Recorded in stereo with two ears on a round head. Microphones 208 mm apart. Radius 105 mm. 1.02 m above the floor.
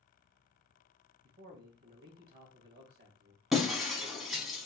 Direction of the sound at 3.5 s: Centre (ahead or behind).